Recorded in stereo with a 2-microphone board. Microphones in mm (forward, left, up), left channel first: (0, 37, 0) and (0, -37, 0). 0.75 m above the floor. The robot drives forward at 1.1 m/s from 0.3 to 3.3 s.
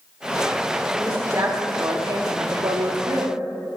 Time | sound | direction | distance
0.9 | a woman speaking | 30° right (ahead or behind) | 2 m